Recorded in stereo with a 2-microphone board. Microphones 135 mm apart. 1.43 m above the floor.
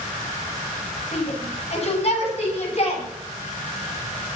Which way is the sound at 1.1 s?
50° left (ahead or behind).